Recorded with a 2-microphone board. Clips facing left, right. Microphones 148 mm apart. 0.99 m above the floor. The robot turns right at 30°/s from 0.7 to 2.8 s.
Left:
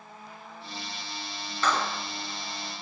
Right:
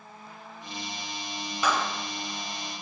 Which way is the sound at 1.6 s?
10° right (ahead or behind).